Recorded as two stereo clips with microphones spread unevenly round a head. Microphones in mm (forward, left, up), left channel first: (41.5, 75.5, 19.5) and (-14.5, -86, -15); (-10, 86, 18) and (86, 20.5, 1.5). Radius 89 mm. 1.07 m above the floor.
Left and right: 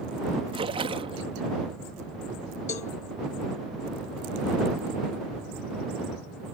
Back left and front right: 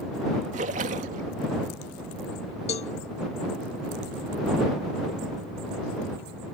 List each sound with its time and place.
0.5 s a splash: 50° right
2.7 s a cowbell: 120° left